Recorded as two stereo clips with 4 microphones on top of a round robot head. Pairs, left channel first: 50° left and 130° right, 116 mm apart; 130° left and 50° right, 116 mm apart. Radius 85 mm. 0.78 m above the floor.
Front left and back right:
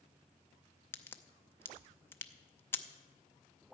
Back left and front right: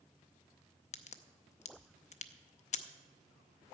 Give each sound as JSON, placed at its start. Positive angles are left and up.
{"t": 0.9, "sound": "a crack", "azimuth_deg": 120, "distance_m": 0.6}